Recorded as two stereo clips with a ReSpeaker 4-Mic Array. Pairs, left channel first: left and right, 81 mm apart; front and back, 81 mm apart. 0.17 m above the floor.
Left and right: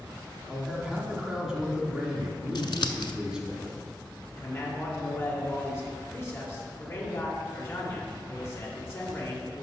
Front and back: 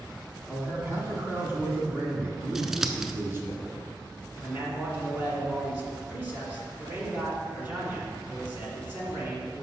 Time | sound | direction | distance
0.5 | a man speaking | 165° right | 1.6 m
2.5 | scissors | 95° left | 0.5 m
4.3 | a man speaking | 130° left | 1.9 m